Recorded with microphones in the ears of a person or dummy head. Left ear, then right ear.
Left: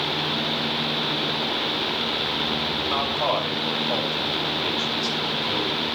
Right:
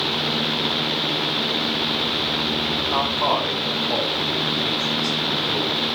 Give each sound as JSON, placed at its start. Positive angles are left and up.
{"t": 2.9, "sound": "a man speaking", "side_deg": 60, "distance_m": 7.0}